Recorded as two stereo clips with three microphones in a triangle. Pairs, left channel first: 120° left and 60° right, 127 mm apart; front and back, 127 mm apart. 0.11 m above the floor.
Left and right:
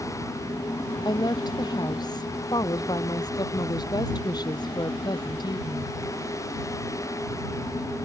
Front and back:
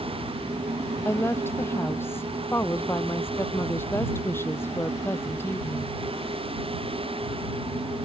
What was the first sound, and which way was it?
A woman speaking, 70° left.